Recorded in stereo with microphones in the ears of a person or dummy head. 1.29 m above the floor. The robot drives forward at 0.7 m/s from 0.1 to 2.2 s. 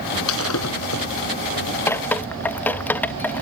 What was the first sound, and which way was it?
Breaking glass, 85° left.